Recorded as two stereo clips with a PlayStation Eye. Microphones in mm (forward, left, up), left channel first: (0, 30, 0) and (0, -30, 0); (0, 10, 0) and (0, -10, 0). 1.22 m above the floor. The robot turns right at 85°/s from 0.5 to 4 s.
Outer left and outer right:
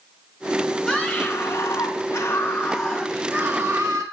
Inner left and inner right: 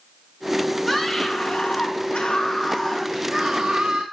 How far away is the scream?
About 5 m.